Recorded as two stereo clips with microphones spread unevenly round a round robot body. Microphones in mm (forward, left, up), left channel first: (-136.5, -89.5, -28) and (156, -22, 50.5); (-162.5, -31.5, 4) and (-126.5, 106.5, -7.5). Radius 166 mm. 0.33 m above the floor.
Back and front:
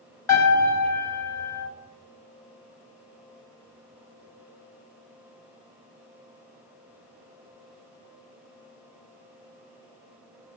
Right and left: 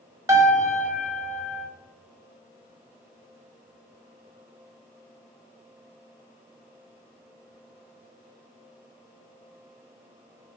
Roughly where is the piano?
Behind left.